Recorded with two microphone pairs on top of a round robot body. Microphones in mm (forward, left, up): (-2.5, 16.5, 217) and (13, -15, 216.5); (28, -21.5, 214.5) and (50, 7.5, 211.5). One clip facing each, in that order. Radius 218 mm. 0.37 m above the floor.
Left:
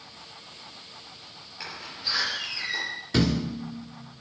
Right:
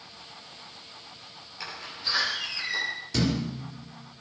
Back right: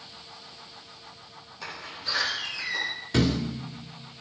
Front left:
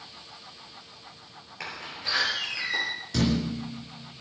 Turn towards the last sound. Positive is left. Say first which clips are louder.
# left 4 dB, back right 1 dB
turn(degrees=175)